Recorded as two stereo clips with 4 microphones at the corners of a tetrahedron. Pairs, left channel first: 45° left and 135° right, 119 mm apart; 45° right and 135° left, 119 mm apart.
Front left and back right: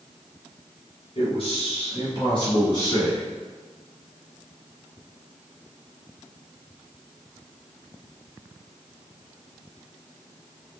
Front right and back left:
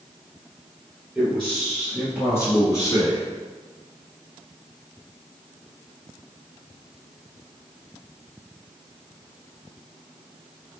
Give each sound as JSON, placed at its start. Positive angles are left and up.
{"t": 1.1, "sound": "a man speaking", "azimuth_deg": 45, "distance_m": 1.8}